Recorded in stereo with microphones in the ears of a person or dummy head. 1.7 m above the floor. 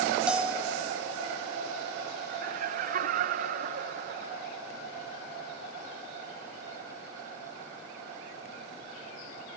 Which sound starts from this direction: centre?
A bell, at 0.3 s.